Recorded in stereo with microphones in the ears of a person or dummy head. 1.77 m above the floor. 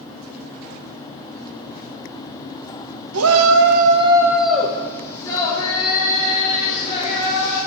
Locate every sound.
3.1 s a shout: 85° right, 1.1 m; by 7.6 s 35° left (ahead or behind), 4.5 m